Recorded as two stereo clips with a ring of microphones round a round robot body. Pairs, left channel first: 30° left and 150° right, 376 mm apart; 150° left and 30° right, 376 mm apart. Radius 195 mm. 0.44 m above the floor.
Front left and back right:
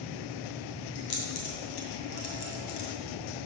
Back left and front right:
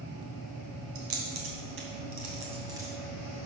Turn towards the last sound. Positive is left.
turn(degrees=55)